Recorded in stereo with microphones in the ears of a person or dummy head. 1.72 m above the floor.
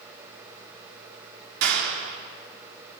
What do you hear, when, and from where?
1.6 s a clap: 65° right (ahead or behind), 3 m